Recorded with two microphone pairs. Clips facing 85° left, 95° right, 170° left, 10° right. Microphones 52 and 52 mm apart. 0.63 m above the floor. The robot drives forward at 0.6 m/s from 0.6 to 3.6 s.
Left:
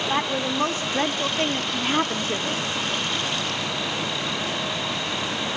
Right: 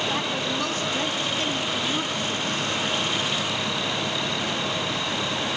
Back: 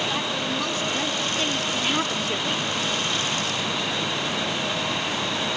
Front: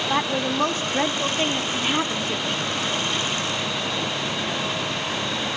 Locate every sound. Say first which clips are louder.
0.1 s a woman speaking: left 2 dB, front 4 dB; 35° left, 1.5 m; by 2.7 s 100° left, 1.0 m